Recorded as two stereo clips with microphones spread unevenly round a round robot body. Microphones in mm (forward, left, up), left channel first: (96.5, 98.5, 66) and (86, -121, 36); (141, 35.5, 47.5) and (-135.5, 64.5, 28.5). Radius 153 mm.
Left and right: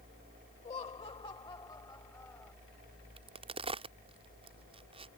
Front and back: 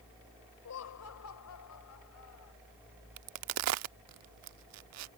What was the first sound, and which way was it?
Laughter, 25° left.